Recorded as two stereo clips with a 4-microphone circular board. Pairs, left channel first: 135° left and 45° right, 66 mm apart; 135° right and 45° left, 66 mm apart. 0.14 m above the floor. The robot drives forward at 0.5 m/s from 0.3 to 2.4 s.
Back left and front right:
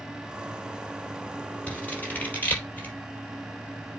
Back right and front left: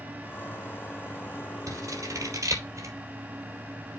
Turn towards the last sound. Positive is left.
turn(degrees=75)